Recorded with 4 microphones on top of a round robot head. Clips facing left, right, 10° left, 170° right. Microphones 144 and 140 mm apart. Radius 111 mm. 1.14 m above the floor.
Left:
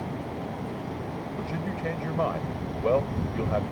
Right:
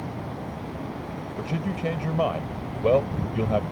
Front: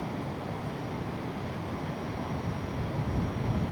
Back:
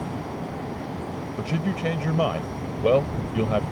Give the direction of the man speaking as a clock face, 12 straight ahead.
5 o'clock.